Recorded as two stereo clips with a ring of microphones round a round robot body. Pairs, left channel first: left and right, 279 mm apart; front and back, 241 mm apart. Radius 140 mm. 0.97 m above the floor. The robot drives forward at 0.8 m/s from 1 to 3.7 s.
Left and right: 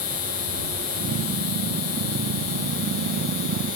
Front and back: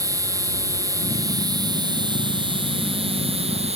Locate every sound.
0.0 s an insect: 105° left; by 3.8 s 115° left